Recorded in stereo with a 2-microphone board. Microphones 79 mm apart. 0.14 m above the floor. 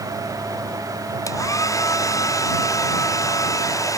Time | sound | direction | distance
1.3 | a hair dryer | 45° left (ahead or behind) | ?